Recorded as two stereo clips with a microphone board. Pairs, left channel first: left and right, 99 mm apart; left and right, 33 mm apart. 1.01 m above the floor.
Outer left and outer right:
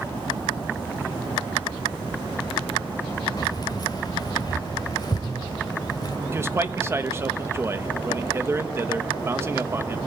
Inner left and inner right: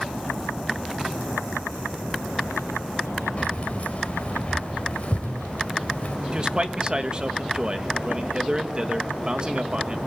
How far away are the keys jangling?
About 3.5 m.